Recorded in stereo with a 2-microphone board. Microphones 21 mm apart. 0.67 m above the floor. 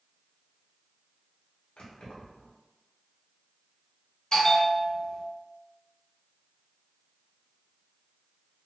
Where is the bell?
40° left (ahead or behind), 0.7 m.